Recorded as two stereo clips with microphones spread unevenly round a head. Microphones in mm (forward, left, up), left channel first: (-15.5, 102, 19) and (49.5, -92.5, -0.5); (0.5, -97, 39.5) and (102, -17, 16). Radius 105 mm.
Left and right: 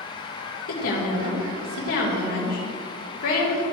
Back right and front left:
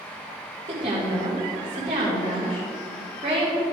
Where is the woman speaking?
95° left, 3 m.